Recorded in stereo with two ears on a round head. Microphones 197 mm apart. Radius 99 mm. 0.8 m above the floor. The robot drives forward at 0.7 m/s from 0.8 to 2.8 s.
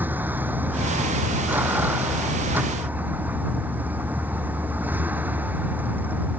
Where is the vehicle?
10° right (ahead or behind).